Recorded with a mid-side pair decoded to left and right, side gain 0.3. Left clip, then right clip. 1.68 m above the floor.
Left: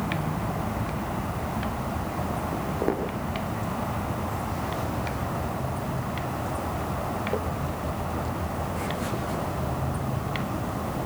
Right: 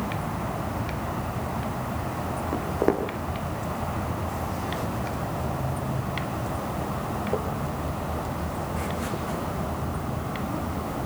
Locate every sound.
2.5 s footsteps: 50° right, 6 m; by 9.4 s 10° right, 7 m